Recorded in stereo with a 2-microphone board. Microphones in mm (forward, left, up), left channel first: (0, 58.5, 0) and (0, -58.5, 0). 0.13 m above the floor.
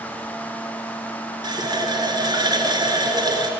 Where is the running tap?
40° right (ahead or behind), 1.1 m.